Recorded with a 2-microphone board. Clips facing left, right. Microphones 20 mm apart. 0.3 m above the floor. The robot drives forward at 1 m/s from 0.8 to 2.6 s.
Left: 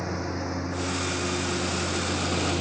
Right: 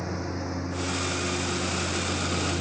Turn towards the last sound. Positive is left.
turn(degrees=20)  # may be behind; listen again after turning